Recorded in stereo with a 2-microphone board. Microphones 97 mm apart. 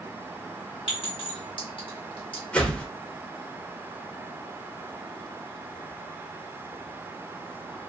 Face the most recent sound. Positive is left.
turn(degrees=10)  # may be behind; listen again after turning